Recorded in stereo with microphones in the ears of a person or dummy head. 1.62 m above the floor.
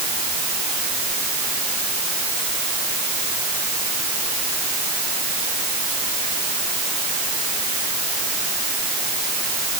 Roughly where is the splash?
I don't hear a splash.